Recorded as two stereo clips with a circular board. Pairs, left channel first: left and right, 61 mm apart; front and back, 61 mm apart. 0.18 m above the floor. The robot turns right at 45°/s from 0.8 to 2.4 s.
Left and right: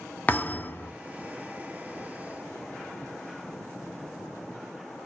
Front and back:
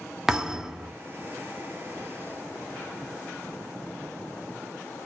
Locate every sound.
0.3 s a thud: 105° left, 0.5 m; by 0.9 s 115° left, 0.5 m